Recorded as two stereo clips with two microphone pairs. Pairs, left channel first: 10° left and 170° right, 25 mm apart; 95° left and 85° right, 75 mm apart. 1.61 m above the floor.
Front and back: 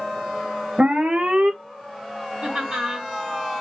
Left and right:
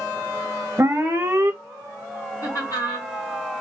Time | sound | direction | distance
0.8 | an alarm | 145° right | 0.9 m
2.4 | laughter | 135° left | 2.5 m